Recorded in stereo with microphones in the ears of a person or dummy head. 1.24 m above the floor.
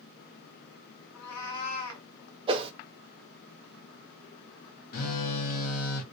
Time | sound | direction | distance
1.1 | a cat meowing | 60° left (ahead or behind) | 1.6 m
2.5 | a whoosh | 35° right (ahead or behind) | 0.5 m
4.9 | a phone buzzing | 50° left (ahead or behind) | 0.9 m